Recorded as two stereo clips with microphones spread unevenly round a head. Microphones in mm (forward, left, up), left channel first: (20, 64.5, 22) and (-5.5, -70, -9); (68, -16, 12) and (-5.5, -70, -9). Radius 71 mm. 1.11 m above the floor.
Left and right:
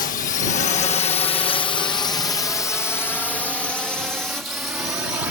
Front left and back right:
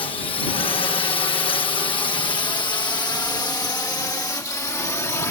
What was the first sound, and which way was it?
A drone, 70° left.